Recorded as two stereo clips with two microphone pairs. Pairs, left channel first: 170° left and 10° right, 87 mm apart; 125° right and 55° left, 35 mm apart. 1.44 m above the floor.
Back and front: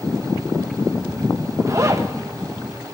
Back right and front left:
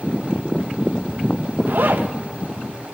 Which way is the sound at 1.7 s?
40° left.